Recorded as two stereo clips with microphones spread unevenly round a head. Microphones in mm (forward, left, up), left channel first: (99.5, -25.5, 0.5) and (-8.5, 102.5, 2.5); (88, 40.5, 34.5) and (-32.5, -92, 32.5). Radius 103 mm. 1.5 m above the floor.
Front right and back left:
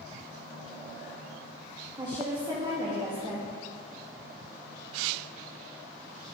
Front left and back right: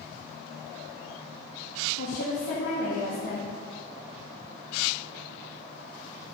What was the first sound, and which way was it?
A woman speaking, 65° left.